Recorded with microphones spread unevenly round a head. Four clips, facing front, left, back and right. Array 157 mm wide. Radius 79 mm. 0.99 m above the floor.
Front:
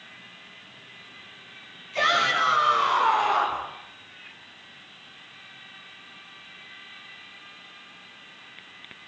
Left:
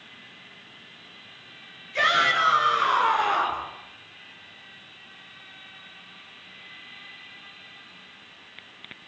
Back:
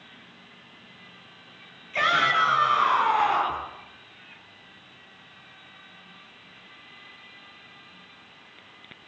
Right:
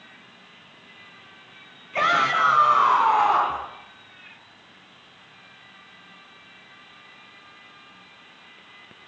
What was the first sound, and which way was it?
A shout, 105° right.